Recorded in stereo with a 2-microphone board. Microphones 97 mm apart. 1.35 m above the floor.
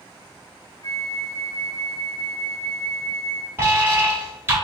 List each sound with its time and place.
0.8 s a flute: 35° left (ahead or behind), 0.9 m
3.6 s an alarm: 25° right (ahead or behind), 1.8 m